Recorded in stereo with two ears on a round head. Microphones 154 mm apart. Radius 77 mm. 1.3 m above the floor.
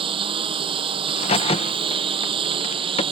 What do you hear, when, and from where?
0.0 s a lawn mower: 30° right (ahead or behind)
1.1 s a crack: 35° left (ahead or behind)